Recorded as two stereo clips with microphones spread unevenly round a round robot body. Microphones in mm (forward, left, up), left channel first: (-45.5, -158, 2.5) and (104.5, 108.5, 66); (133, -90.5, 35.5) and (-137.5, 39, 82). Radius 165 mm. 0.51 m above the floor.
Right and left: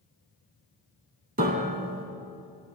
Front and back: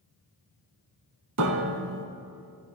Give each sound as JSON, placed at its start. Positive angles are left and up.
{"t": 1.4, "sound": "a piano", "azimuth_deg": 120, "distance_m": 0.9}